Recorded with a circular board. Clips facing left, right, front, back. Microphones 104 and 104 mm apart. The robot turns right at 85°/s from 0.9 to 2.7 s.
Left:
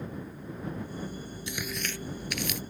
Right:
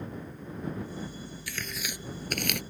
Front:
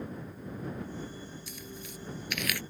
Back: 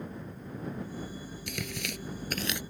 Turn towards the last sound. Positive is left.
turn(degrees=-100)